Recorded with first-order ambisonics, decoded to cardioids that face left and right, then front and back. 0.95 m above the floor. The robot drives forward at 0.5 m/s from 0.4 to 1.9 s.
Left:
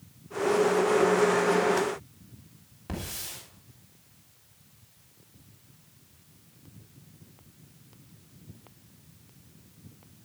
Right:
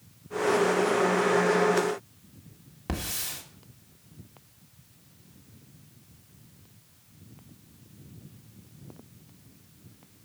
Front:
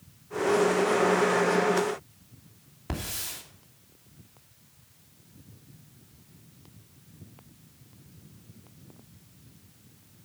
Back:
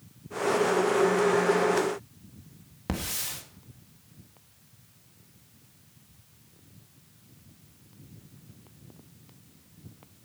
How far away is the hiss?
About 1.7 m.